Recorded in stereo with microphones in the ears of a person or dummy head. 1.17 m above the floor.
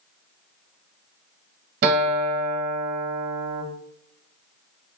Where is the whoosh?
No whoosh in this recording.